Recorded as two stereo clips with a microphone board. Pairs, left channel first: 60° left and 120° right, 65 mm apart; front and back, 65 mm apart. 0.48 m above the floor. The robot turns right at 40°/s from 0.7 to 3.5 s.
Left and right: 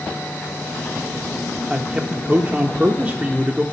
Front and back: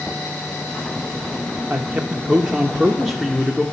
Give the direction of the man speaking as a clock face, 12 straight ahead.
5 o'clock.